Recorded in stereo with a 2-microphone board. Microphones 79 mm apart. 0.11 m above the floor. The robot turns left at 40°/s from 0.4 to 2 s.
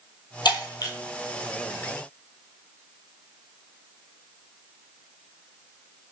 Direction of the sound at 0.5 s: 65° left (ahead or behind).